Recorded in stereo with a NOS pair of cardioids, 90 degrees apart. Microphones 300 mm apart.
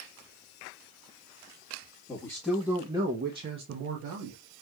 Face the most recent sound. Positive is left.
turn(degrees=-70)